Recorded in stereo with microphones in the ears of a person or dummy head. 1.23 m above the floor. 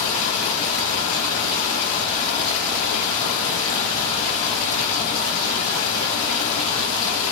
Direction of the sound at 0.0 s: 70° left (ahead or behind).